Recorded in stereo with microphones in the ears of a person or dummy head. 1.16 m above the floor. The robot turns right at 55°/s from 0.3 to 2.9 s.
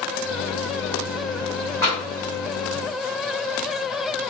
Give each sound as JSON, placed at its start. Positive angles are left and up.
{"t": 1.8, "sound": "tapping", "side_deg": 10, "distance_m": 1.9}